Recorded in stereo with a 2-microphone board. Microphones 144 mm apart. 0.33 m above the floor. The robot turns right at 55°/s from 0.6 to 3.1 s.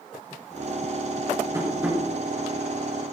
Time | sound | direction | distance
1.5 | tapping | 25° right (ahead or behind) | 5 m